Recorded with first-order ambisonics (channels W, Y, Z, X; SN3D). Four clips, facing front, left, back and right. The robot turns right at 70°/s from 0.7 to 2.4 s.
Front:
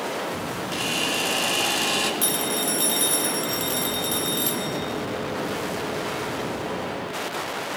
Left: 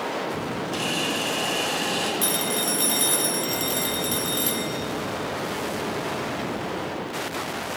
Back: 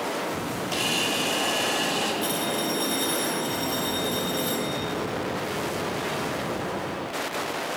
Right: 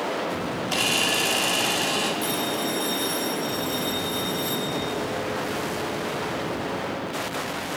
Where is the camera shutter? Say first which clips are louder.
Right 4 dB, even; 100° right, 2.5 m; by 2.1 s 5° right, 2.5 m.